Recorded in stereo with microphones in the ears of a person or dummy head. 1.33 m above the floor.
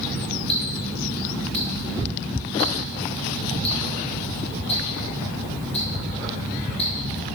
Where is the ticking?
30° left (ahead or behind), 1.1 m.